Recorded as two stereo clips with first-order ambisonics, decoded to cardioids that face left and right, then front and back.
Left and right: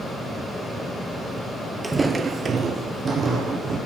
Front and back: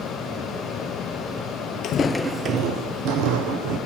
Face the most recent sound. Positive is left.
turn(degrees=-165)